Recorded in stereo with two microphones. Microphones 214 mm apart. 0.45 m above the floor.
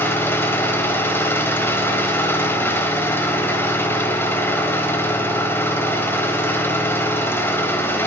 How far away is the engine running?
About 0.9 m.